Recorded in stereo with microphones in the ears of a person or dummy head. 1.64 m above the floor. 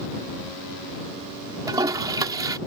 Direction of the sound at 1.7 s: 20° right (ahead or behind).